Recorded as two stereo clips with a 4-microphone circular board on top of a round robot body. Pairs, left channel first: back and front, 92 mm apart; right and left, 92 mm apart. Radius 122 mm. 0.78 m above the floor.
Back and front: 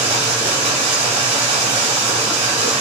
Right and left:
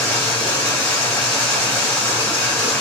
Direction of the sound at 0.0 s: 10° right.